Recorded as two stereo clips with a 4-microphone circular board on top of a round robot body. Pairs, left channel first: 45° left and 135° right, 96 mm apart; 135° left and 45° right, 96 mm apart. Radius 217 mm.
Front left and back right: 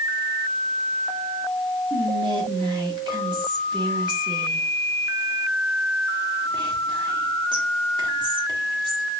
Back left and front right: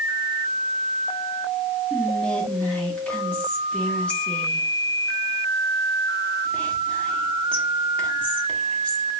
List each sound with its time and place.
1.9 s whispering: 150° right, 1.6 m